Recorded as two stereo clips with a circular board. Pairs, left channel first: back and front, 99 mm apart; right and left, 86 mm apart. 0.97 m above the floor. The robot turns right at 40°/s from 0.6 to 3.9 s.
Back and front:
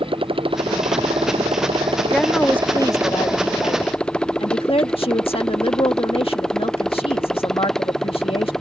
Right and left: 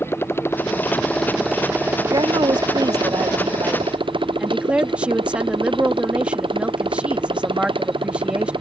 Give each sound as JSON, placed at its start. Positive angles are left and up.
{"t": 0.0, "sound": "a motorcycle", "azimuth_deg": -30}
{"t": 2.1, "sound": "a woman speaking", "azimuth_deg": 95}